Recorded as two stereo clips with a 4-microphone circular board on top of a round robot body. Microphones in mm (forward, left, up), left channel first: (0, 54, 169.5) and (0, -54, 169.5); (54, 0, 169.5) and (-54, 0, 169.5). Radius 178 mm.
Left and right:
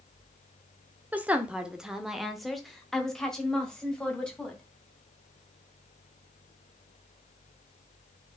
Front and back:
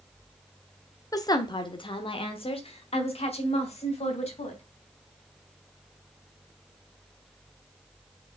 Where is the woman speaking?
25° right, 1.1 m; by 4.6 s 10° left, 3 m.